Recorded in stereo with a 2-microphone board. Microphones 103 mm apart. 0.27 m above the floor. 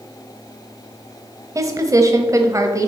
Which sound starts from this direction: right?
A woman speaking, at 1.6 s.